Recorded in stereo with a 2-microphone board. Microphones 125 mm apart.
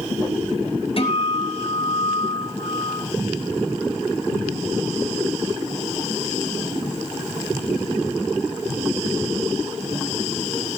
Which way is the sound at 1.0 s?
50° left (ahead or behind).